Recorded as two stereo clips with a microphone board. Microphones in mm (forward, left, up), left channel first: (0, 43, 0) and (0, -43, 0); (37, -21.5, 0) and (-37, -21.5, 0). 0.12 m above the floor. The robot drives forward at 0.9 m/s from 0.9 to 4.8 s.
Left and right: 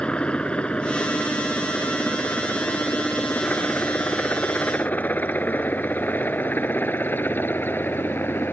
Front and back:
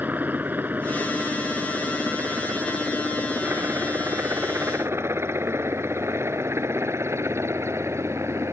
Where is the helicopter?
155° left; by 8.5 s 145° left.